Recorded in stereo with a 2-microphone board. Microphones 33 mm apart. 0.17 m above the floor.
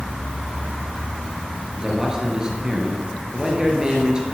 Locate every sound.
1.8 s a man speaking: 25° right (ahead or behind), 2.5 m